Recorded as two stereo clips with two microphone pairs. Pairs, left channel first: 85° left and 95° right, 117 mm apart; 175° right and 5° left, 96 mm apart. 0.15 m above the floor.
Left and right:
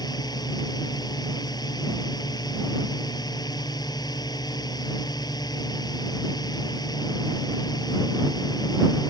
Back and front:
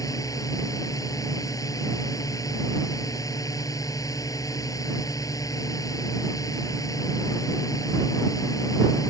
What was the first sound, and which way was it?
A drone, 135° left.